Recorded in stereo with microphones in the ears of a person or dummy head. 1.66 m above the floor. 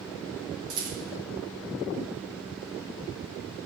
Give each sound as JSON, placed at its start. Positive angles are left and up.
{"t": 0.7, "sound": "a rattle", "side_deg": -80, "distance_m": 2.5}